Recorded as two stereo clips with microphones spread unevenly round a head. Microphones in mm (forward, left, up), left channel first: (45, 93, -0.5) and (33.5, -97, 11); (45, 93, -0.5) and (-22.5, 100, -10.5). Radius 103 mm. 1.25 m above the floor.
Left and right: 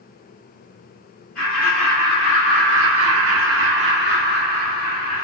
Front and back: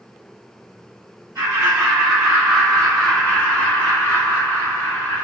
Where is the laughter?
175° left, 1.2 m; by 5.2 s 45° right, 1.9 m.